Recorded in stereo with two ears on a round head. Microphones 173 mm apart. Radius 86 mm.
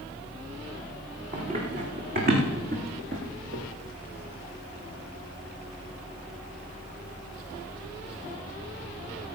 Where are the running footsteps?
45° right (ahead or behind), 6 m; by 3.6 s 60° right (ahead or behind), 4.5 m.